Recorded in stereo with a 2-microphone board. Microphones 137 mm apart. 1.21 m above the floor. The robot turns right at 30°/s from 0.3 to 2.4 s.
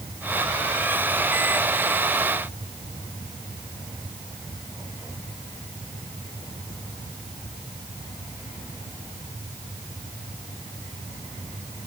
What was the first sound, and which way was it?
Only background noise.